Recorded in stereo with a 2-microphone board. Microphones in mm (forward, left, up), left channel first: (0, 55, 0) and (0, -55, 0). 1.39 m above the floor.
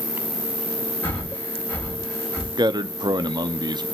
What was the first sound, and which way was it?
An insect, 25° right (ahead or behind).